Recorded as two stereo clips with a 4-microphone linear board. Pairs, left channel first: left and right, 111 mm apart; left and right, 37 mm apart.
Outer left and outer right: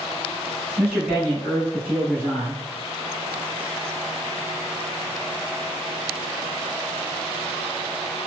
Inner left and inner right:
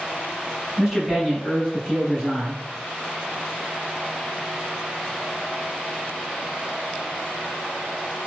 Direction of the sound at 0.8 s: 10° right (ahead or behind).